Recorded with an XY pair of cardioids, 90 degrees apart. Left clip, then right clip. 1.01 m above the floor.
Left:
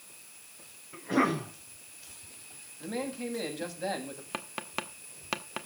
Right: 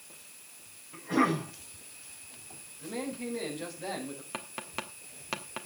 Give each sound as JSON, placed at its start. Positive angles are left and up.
{"t": 0.9, "sound": "a cough", "azimuth_deg": 35, "distance_m": 7.0}
{"t": 2.8, "sound": "a man speaking", "azimuth_deg": 50, "distance_m": 7.5}
{"t": 4.3, "sound": "tapping", "azimuth_deg": 25, "distance_m": 1.7}